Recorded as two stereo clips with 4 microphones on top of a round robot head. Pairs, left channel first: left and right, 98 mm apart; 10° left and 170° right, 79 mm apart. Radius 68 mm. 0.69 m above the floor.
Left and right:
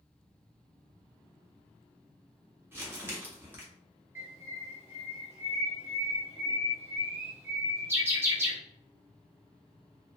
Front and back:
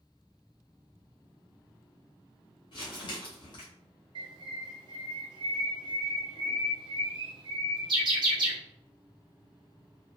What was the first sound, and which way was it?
Crumpling, 25° right.